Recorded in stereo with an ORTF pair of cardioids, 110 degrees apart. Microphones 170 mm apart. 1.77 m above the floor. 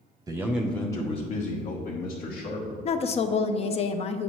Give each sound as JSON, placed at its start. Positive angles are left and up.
{"t": 0.3, "sound": "a man speaking", "azimuth_deg": -25, "distance_m": 0.8}
{"t": 2.9, "sound": "a woman speaking", "azimuth_deg": 40, "distance_m": 0.6}